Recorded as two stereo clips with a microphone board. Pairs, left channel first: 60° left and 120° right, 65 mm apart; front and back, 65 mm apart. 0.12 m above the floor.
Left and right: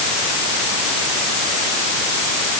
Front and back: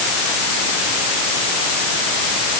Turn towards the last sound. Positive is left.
No sound to turn to.